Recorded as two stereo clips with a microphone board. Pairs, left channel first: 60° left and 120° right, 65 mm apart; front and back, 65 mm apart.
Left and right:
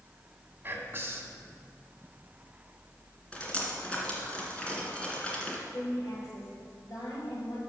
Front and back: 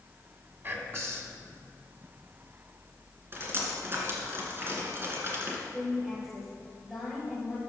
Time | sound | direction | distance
0.6 | whispering | 155° right | 1.9 m
3.3 | dripping | 130° left | 2.5 m
5.7 | a woman speaking | 90° left | 4.5 m